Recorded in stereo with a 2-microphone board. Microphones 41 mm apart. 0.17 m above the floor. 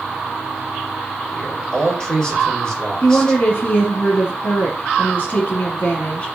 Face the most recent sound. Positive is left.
turn(degrees=35)  # may be behind; listen again after turning